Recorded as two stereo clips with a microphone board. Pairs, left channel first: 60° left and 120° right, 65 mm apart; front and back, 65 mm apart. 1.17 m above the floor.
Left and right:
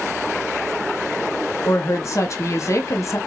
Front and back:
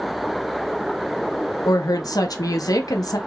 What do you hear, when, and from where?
1.6 s a woman speaking: 20° left, 0.6 m